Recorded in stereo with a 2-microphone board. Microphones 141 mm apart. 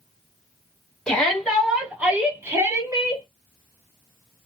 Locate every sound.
1.1 s a shout: 10° left (ahead or behind), 1.3 m; by 3.2 s 25° right (ahead or behind), 1.5 m